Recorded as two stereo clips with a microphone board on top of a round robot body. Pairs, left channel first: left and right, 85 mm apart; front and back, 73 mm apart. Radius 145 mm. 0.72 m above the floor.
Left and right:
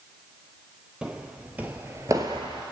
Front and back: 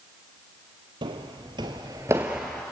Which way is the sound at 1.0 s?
170° right.